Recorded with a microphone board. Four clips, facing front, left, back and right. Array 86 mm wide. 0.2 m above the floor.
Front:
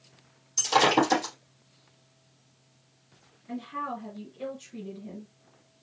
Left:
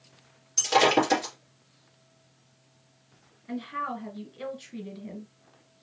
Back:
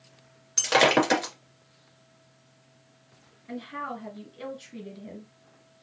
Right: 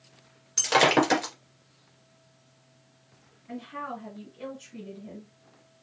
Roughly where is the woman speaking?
Behind left.